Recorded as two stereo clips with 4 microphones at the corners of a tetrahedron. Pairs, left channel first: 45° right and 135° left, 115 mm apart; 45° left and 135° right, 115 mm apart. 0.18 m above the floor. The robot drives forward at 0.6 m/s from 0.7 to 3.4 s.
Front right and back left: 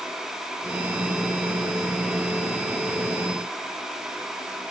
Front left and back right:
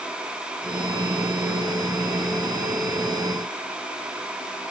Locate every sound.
Only background noise.